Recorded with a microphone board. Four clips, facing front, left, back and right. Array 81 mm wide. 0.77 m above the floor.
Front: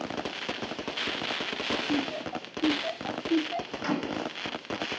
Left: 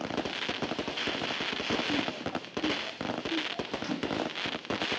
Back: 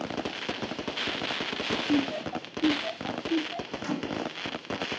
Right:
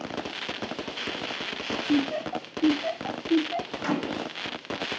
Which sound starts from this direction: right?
Laughter, at 1.9 s.